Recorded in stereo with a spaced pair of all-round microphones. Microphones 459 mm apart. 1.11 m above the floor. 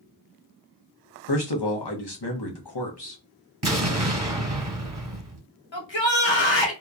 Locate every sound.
1.3 s a man speaking: 60° left (ahead or behind), 0.8 m
3.6 s an explosion: 55° right (ahead or behind), 1.4 m
5.7 s a shout: 75° left (ahead or behind), 1.1 m